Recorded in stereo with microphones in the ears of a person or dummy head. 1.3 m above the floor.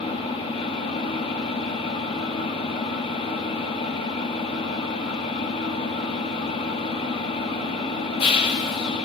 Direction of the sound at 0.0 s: 30° left (ahead or behind).